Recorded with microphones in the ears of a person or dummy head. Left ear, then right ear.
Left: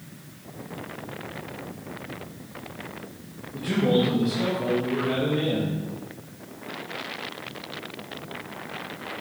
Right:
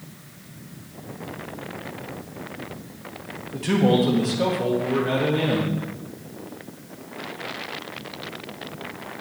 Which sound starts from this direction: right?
A man speaking, at 3.5 s.